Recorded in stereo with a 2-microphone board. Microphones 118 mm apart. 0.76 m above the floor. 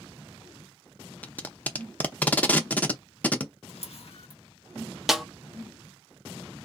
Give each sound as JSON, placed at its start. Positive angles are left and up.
{"t": 1.2, "sound": "tape being pulled", "side_deg": 15, "distance_m": 0.6}
{"t": 3.7, "sound": "a camera shutter", "side_deg": 65, "distance_m": 0.7}
{"t": 5.1, "sound": "a snare drum", "side_deg": -5, "distance_m": 0.5}